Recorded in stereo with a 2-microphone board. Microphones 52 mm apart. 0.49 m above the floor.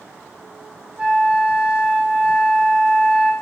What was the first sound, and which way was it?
A flute, 30° right (ahead or behind).